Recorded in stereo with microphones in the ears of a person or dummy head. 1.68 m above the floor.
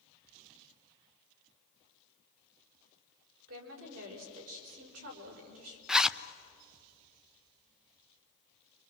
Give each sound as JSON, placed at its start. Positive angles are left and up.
{"t": 3.5, "sound": "a woman speaking", "side_deg": -85, "distance_m": 5.5}
{"t": 5.9, "sound": "a zipper", "side_deg": -5, "distance_m": 0.6}